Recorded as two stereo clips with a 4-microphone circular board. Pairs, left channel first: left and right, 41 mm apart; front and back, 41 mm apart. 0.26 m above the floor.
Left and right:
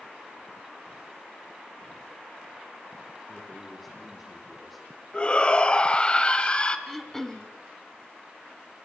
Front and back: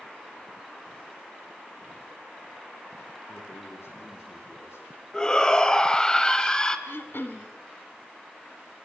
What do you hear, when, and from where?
3.3 s a man speaking: straight ahead, 9.5 m
5.1 s a shout: 60° left, 1.5 m
6.9 s throat clearing: 10° left, 1.5 m